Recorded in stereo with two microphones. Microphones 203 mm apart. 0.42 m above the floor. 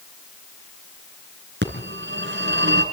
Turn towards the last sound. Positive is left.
turn(degrees=-65)  # may be behind; listen again after turning